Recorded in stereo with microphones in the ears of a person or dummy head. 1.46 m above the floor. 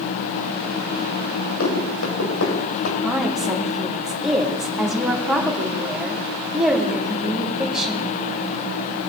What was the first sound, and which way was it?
Running footsteps, 75° left (ahead or behind).